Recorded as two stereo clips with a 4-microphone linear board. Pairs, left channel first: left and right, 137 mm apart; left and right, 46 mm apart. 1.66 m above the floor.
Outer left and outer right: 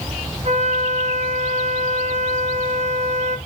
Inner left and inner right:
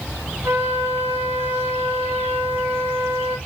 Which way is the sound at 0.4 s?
55° right (ahead or behind).